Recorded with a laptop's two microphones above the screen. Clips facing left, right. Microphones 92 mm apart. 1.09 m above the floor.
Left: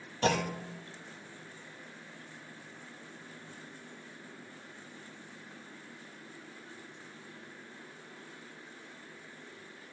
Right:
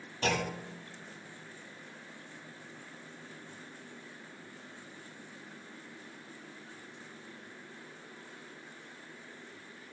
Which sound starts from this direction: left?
A clunk, at 0.2 s.